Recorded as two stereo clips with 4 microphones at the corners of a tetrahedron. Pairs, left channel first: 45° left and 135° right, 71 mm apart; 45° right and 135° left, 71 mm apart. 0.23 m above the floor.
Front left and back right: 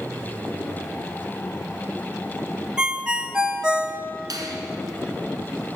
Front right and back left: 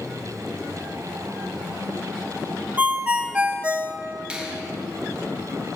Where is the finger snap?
150° right, 2 m.